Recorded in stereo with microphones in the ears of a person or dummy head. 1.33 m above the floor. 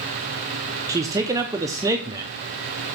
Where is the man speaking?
20° right (ahead or behind), 0.7 m.